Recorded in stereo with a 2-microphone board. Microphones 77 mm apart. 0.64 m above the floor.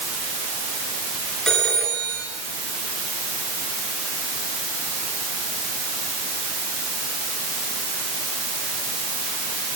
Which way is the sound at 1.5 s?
10° left (ahead or behind).